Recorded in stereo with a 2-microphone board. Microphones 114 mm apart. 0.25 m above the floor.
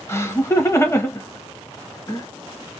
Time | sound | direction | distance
0.1 | laughter | 25° left (ahead or behind) | 1.0 m